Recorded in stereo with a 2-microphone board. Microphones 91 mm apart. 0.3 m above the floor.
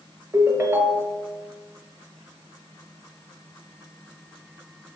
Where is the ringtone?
30° right (ahead or behind), 0.5 m.